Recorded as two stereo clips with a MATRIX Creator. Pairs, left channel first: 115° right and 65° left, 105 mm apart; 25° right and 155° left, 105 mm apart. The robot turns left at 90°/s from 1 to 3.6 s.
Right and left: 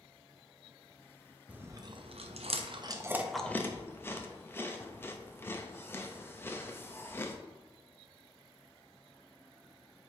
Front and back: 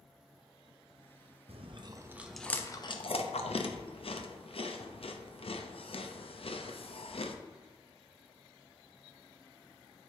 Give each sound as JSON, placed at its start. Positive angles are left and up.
{"t": 1.5, "sound": "chewing", "azimuth_deg": 145, "distance_m": 0.6}